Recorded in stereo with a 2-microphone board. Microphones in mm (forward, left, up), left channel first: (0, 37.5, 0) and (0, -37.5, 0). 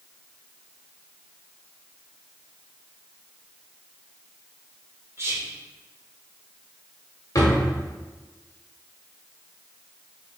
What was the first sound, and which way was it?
Whispering, 35° right (ahead or behind).